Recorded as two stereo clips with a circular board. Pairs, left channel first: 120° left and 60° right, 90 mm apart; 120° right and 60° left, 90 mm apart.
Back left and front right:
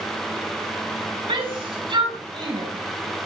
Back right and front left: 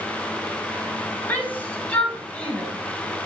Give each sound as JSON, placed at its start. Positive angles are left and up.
{"t": 1.3, "sound": "a shout", "azimuth_deg": -50, "distance_m": 5.5}